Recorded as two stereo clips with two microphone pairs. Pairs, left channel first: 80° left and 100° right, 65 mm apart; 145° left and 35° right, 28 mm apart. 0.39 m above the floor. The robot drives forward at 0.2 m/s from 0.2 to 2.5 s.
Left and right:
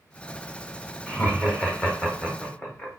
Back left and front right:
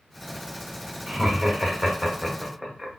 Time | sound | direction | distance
1.1 | laughter | 35° left | 1.4 m